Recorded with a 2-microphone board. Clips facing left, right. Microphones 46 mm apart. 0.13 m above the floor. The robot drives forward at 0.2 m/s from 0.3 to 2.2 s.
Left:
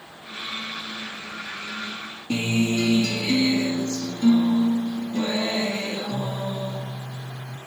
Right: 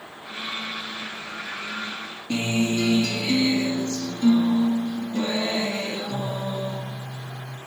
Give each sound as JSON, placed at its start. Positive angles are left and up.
{"t": 2.3, "sound": "a guitar", "side_deg": 10, "distance_m": 1.7}